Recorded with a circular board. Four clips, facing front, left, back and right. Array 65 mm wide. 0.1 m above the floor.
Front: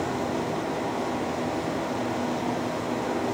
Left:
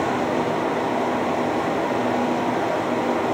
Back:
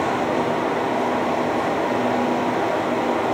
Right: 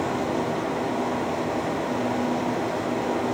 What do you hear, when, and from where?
Only background noise.